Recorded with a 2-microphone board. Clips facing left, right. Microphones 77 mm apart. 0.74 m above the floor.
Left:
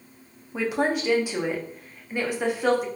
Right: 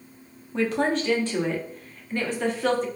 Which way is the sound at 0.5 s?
10° left (ahead or behind).